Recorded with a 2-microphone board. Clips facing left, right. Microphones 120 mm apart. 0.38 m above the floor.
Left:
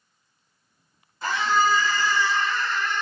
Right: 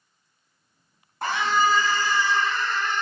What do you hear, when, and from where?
1.2 s a scream: 60° right (ahead or behind), 4 m; by 3.0 s 50° right (ahead or behind), 5 m